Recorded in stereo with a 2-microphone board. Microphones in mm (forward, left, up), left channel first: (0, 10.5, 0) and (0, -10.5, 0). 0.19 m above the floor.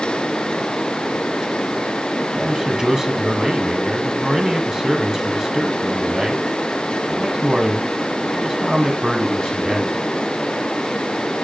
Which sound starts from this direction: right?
A man speaking, at 2.4 s.